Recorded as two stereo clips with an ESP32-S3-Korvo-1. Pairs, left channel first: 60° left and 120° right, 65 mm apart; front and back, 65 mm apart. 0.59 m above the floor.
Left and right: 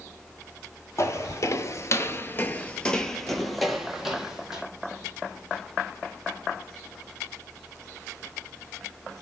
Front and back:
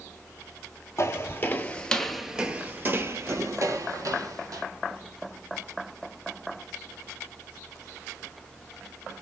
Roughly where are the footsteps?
Ahead left.